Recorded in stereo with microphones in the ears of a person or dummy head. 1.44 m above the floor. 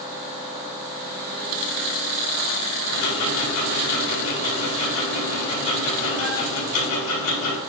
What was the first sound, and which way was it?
Ticking, 80° left.